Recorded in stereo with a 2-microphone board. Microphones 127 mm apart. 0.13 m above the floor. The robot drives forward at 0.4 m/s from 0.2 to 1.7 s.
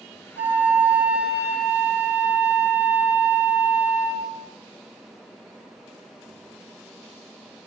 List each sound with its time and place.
0.4 s a flute: 15° right (ahead or behind), 1.3 m; by 4.3 s 10° right (ahead or behind), 1.8 m